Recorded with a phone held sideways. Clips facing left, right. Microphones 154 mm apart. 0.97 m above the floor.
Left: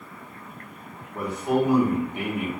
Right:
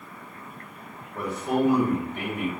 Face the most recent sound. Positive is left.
turn(degrees=10)  # may be behind; listen again after turning